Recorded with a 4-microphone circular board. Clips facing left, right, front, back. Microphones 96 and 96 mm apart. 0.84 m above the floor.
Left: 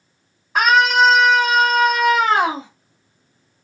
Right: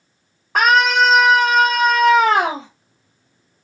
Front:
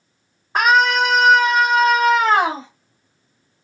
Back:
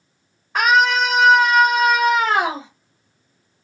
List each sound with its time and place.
0.6 s a scream: 65° right, 1.8 m; by 2.7 s 100° right, 3 m